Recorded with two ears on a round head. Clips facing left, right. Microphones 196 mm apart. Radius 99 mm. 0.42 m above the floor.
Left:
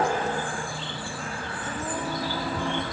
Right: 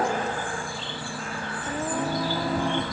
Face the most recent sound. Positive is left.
turn(degrees=-45)  # may be behind; listen again after turning